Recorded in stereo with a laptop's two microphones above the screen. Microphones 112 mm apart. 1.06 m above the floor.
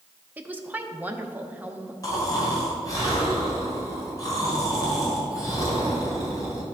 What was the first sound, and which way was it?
A woman speaking, 15° right (ahead or behind).